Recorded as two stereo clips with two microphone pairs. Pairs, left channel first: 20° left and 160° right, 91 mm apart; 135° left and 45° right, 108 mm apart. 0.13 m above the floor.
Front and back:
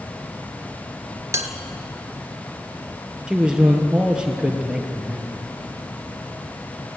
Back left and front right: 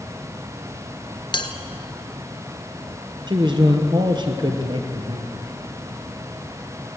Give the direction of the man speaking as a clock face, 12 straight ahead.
3 o'clock.